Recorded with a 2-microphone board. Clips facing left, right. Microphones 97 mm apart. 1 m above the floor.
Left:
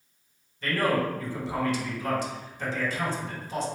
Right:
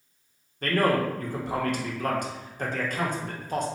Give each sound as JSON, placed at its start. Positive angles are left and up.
{"t": 0.6, "sound": "a man speaking", "side_deg": -50, "distance_m": 0.6}